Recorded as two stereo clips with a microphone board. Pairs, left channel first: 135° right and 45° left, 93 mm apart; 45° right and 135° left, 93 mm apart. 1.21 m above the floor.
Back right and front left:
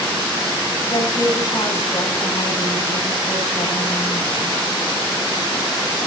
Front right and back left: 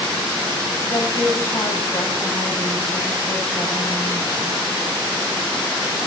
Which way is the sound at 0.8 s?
90° right.